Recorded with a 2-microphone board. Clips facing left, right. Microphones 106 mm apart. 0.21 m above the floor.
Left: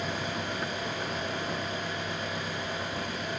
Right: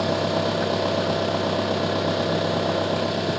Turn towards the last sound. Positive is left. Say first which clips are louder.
# right 11 dB
turn(degrees=-85)